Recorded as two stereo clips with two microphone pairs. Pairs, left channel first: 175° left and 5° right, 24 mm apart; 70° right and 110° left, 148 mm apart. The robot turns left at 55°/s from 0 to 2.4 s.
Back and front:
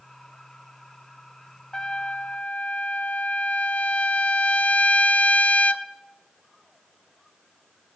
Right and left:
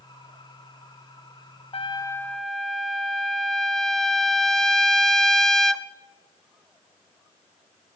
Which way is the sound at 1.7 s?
120° right.